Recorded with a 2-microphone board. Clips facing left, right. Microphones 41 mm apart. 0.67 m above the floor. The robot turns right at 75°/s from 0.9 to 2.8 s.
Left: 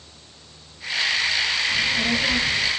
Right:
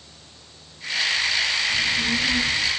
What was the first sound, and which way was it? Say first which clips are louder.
A child speaking: left 1 dB; 55° left.